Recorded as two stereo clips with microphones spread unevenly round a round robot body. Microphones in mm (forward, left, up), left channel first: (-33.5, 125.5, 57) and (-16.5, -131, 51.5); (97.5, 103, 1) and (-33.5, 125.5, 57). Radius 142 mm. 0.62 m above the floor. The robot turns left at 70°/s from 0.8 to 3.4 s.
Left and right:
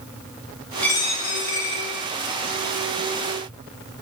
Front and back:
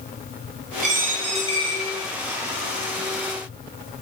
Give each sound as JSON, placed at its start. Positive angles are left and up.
{"t": 0.8, "sound": "a dropped coin", "azimuth_deg": 180, "distance_m": 3.5}